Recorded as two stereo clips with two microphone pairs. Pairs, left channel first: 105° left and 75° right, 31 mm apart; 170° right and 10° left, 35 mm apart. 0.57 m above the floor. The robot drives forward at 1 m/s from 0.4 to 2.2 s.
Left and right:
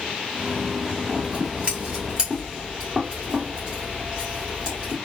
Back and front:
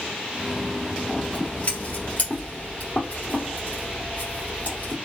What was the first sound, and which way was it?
Scissors, 115° right.